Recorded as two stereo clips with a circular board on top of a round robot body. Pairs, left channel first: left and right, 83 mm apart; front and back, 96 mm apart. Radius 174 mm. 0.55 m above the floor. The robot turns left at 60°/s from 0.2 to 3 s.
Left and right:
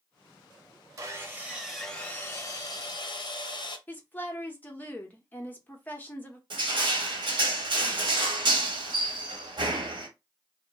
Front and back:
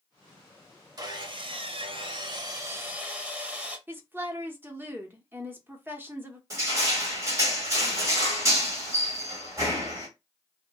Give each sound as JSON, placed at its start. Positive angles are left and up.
{"t": 1.0, "sound": "sawing", "azimuth_deg": -135, "distance_m": 0.9}
{"t": 3.9, "sound": "a woman speaking", "azimuth_deg": 135, "distance_m": 1.0}
{"t": 6.5, "sound": "crushing", "azimuth_deg": -120, "distance_m": 1.2}